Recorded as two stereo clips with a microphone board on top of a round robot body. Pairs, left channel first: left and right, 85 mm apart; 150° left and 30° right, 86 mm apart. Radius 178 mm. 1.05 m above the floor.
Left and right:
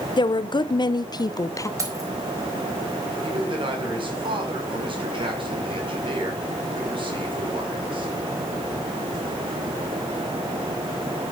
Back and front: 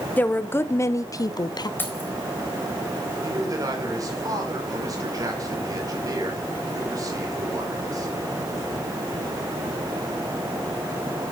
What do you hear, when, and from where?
0.2 s a woman speaking: 80° left, 1.4 m; by 1.7 s 135° left, 1.2 m
1.8 s keys jangling: 145° right, 4 m
3.2 s a man speaking: 80° right, 5 m